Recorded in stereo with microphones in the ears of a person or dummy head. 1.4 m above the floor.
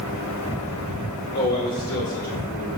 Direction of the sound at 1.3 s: 25° left (ahead or behind).